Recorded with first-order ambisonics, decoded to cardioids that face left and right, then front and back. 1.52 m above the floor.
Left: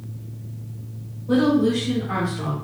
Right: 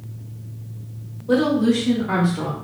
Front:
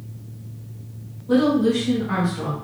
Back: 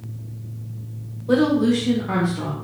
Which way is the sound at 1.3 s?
160° right.